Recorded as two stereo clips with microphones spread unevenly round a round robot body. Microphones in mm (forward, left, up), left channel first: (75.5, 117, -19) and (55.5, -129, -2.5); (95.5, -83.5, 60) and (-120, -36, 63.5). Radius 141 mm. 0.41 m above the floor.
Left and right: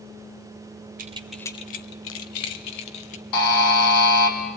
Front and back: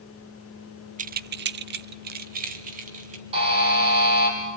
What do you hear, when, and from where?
1.0 s keys jangling: 145° right, 0.6 m; by 3.2 s 110° left, 1.9 m
3.3 s a buzzer: 100° left, 3.5 m